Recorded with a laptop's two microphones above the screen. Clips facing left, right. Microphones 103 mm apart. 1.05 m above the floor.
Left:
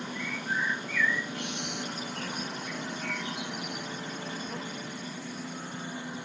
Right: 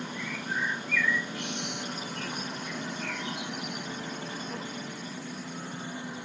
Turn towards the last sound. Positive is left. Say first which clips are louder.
# left 2 dB
turn(degrees=60)  # may be behind; listen again after turning